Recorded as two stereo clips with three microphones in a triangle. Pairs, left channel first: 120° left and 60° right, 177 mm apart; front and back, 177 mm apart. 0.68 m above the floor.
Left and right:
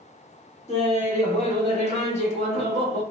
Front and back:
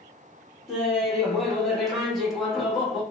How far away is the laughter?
About 1.3 m.